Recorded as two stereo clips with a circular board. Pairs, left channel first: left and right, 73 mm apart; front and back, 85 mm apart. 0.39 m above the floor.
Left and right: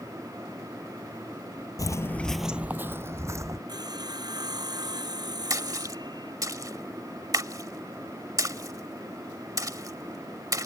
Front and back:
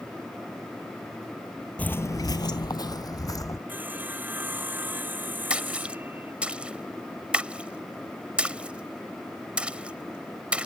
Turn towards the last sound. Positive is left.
turn(degrees=-105)